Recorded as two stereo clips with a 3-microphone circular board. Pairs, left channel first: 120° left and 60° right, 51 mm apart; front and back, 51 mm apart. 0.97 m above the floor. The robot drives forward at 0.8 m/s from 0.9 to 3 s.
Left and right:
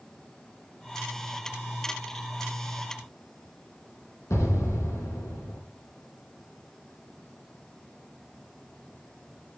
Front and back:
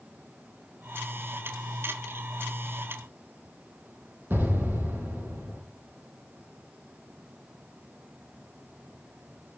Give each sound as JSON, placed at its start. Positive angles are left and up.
{"t": 4.3, "sound": "an explosion", "azimuth_deg": 140, "distance_m": 3.5}